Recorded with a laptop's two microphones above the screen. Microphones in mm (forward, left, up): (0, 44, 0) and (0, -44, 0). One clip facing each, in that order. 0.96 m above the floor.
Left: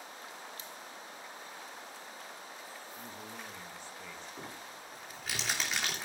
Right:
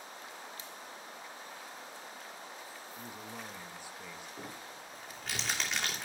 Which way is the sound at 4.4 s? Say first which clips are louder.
Even; centre (ahead or behind).